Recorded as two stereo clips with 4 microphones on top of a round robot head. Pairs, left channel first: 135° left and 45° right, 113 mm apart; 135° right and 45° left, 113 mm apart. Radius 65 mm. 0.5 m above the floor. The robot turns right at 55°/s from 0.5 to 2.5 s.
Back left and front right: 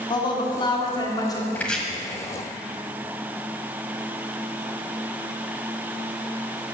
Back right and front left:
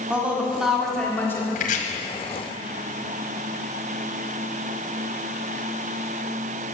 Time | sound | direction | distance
0.1 | a woman speaking | 120° left | 1.6 m
1.6 | chopping | 150° right | 1.3 m